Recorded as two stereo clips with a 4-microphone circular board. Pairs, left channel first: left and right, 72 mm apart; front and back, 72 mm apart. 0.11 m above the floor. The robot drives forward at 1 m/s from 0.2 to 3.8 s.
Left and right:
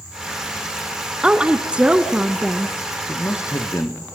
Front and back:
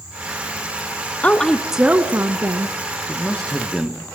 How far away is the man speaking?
About 1.8 m.